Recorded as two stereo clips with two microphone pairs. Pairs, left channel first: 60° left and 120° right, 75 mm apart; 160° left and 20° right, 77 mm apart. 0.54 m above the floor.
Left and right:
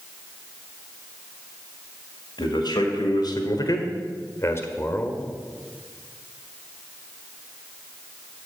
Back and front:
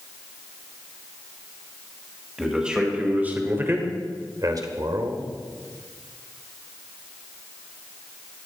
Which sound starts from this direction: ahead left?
A man speaking, at 2.4 s.